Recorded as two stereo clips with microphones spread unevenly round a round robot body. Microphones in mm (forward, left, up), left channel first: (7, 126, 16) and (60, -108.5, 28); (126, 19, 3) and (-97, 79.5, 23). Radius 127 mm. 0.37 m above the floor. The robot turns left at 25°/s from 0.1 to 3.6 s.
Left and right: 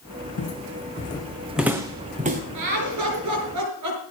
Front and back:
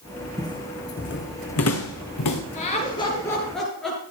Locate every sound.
0.4 s footsteps: 60° left, 1.6 m; by 2.4 s 20° right, 2.5 m
2.5 s laughter: 80° right, 5.5 m; by 4.0 s 105° right, 5.5 m